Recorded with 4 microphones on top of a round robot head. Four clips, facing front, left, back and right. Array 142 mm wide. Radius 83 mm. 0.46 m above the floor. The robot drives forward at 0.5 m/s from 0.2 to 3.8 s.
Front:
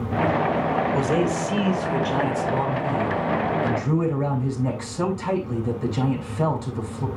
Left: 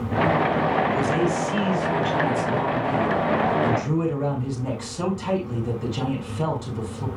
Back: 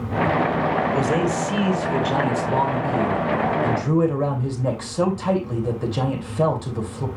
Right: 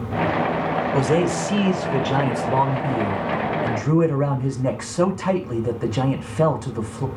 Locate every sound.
0.9 s a man speaking: 90° right, 2 m; by 7.1 s 130° right, 2.5 m